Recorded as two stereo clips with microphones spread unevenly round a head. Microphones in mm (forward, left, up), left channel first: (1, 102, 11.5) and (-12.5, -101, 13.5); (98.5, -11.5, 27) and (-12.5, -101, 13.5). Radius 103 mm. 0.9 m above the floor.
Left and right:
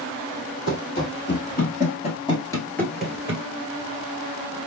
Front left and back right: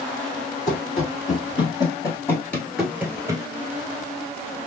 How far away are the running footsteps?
About 1.4 m.